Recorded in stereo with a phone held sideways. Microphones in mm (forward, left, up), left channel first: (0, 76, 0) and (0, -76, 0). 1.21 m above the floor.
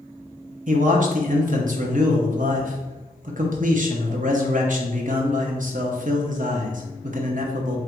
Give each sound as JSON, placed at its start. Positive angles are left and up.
{"t": 0.7, "sound": "a man speaking", "side_deg": -60, "distance_m": 0.8}